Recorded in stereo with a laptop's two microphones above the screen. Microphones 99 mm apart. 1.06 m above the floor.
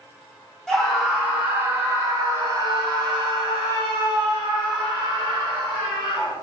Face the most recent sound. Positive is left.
turn(degrees=-60)  # may be behind; listen again after turning